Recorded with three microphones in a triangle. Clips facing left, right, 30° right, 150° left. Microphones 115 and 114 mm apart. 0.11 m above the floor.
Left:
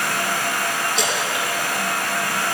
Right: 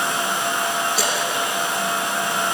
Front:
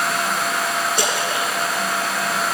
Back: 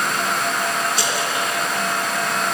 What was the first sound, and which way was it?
A splash, 5° right.